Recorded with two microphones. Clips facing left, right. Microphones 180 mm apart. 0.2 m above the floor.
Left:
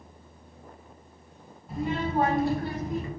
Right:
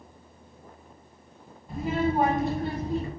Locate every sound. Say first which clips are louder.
1.7 s a child speaking: right 2 dB; centre (ahead or behind), 0.8 m; by 3.1 s 35° right (ahead or behind), 0.9 m